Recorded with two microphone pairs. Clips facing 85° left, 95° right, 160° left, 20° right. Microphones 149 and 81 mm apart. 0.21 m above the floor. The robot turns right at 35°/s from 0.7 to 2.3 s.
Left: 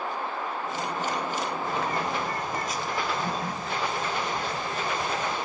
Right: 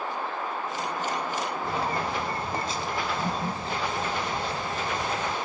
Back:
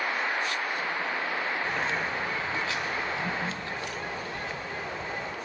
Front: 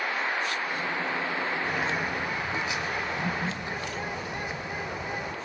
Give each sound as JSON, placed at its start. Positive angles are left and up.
{"t": 1.6, "sound": "a bird", "azimuth_deg": -100, "distance_m": 0.7}